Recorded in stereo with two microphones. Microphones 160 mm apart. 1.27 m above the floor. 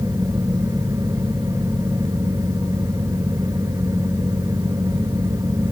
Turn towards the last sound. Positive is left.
No sound to turn to.